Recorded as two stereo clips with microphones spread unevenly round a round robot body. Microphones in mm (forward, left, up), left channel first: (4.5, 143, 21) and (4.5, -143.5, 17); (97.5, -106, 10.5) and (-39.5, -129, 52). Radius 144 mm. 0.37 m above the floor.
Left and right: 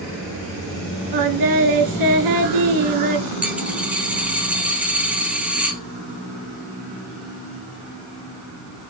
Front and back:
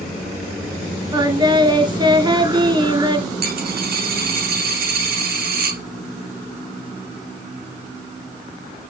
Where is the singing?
110° right, 1.5 m.